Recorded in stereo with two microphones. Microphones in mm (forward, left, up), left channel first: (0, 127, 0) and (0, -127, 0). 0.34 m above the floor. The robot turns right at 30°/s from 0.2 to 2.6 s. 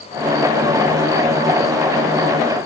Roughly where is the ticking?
No ticking in this recording.